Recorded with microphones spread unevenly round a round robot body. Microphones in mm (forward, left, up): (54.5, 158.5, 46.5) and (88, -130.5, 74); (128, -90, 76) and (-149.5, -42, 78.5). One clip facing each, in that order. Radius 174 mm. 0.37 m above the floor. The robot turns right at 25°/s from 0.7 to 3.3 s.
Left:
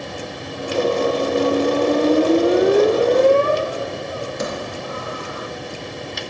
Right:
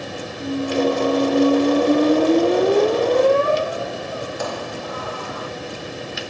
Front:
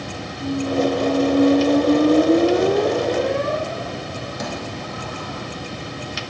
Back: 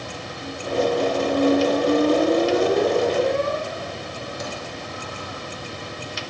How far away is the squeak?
About 3.5 m.